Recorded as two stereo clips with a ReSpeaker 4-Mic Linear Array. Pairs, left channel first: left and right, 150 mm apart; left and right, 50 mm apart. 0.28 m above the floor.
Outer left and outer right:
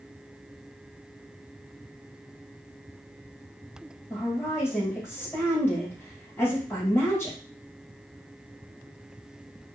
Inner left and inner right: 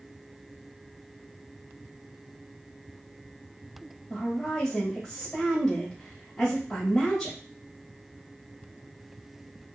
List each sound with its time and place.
4.1 s a woman speaking: 15° left (ahead or behind), 1.4 m